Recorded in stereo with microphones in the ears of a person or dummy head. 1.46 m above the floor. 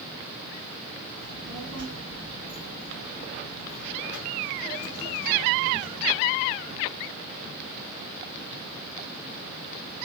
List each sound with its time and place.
1.2 s a child speaking: 70° right (ahead or behind), 4 m; by 6.2 s 55° right (ahead or behind), 3 m